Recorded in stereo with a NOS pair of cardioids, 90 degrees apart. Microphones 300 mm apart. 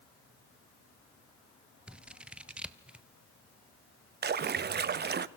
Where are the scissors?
5° right, 1.1 m.